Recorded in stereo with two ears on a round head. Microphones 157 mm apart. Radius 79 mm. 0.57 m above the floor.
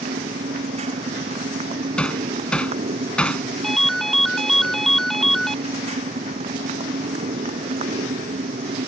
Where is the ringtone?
Centre (ahead or behind).